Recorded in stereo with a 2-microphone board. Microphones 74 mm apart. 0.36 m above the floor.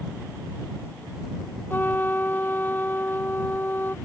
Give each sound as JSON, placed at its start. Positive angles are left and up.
{"t": 1.7, "sound": "a trumpet", "side_deg": 25}